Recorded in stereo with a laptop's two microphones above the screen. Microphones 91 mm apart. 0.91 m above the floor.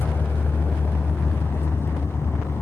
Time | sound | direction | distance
0.0 | a vehicle | 25° left (ahead or behind) | ?